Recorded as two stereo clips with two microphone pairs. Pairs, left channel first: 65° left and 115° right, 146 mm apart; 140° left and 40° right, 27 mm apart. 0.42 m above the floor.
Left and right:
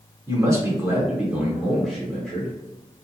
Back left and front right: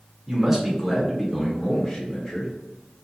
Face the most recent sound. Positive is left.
turn(degrees=140)